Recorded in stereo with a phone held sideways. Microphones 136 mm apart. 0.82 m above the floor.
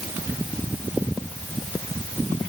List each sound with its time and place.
Only background noise.